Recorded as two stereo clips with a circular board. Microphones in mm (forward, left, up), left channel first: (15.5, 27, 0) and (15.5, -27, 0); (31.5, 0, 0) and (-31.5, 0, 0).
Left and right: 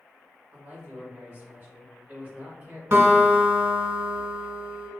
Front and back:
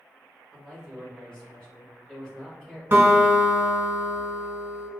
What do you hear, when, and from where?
0.5 s a man speaking: 65° right, 1.5 m
2.9 s a guitar: 130° right, 1.1 m